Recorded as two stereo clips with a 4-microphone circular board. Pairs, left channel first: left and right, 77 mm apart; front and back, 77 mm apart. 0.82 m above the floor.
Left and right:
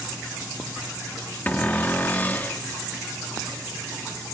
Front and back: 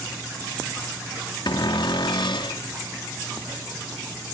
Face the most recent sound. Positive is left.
turn(degrees=20)